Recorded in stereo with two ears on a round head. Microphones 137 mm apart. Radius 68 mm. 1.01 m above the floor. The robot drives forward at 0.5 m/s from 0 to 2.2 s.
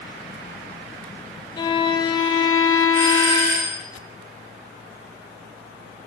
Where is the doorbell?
65° right (ahead or behind), 1.9 m.